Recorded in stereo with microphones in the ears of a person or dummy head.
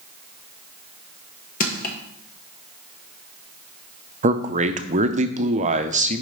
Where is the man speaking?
40° right (ahead or behind), 0.6 m.